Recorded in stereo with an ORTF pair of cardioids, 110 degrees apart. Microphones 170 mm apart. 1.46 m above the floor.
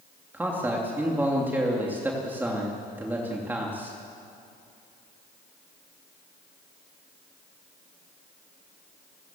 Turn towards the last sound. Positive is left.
turn(degrees=-10)